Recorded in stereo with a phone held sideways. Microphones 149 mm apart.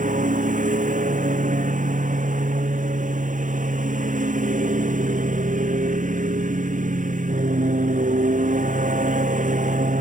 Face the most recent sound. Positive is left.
turn(degrees=-60)  # may be behind; listen again after turning